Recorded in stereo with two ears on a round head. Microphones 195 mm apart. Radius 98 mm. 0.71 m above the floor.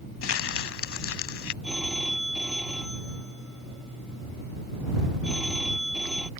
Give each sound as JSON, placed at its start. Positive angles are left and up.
{"t": 0.2, "sound": "crumpling", "side_deg": 60}
{"t": 1.6, "sound": "a phone ringing", "side_deg": 0}